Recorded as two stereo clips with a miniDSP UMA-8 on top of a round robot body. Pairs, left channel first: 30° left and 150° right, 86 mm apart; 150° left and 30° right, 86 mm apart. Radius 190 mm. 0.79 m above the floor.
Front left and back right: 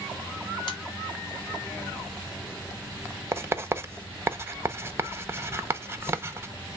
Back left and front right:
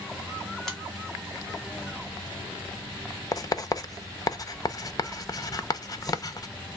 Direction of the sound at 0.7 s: 65° left.